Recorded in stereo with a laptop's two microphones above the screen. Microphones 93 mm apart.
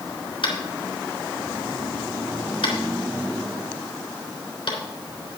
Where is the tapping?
60° left (ahead or behind), 3.5 m.